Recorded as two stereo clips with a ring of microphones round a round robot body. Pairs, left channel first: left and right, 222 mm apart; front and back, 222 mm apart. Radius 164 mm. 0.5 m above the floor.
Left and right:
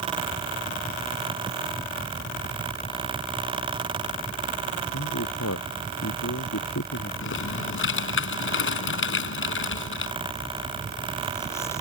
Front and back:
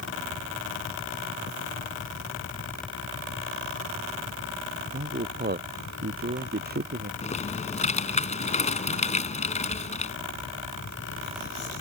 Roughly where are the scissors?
No scissors in this recording.